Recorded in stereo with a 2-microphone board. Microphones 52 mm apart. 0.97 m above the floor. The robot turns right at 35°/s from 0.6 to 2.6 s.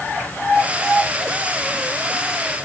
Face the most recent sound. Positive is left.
No sound to turn to.